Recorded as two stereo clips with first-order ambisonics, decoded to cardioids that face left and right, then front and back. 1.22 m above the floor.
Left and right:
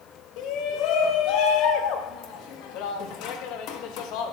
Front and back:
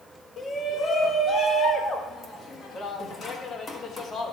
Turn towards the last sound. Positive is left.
turn(degrees=65)